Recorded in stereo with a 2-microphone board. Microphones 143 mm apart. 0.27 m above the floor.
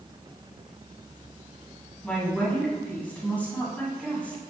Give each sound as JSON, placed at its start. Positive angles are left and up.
{"t": 2.0, "sound": "a woman speaking", "side_deg": 10, "distance_m": 2.0}